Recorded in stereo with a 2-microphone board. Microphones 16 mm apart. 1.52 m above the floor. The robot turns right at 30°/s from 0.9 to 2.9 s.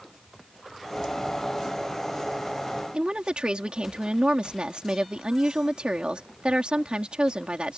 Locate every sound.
2.9 s a woman speaking: 80° right